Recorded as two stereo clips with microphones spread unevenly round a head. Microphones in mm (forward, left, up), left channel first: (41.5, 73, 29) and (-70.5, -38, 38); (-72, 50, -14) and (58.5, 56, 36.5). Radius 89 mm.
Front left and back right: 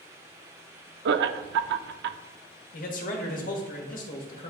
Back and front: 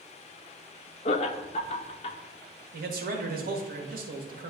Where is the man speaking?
15° left, 1.3 m.